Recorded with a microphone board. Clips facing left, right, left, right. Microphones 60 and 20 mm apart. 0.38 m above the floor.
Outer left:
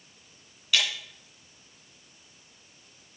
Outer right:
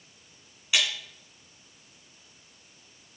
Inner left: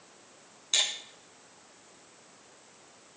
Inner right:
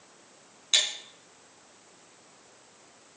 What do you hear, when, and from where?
0.7 s breaking glass: 20° right (ahead or behind), 8 m